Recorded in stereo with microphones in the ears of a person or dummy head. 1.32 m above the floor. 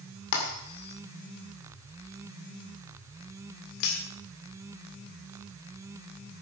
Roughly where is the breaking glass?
Left.